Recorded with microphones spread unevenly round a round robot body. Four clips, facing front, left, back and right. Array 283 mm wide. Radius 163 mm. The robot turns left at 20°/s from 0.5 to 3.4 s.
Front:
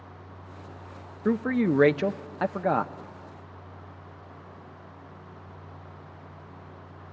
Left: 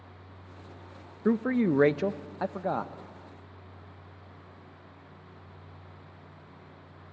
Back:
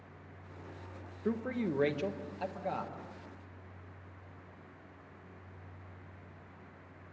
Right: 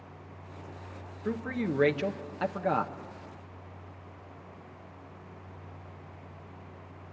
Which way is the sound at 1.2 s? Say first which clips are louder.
Left 7 dB, front 10 dB; 20° left.